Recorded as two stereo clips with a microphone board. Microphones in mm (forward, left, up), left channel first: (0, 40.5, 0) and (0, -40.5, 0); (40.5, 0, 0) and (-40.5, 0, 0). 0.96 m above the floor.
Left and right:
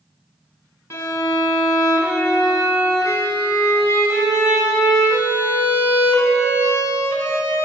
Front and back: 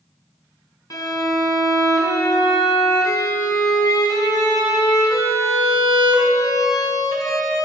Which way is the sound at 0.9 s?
40° left.